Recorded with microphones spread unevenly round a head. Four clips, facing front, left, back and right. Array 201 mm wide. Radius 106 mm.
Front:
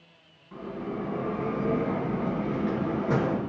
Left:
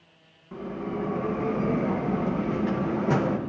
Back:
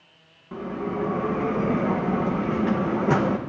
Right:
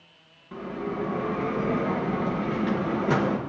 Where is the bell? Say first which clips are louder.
Right 1 dB, back 5 dB; 175° left, 0.9 m.